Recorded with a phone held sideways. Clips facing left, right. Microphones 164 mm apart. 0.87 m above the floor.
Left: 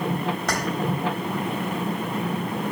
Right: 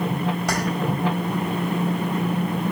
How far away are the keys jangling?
About 3 m.